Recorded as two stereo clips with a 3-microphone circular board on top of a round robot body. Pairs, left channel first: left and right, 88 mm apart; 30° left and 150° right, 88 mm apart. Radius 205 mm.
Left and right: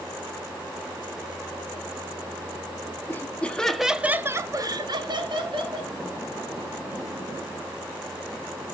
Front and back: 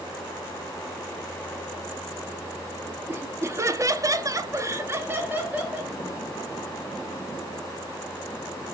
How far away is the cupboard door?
I don't hear a cupboard door.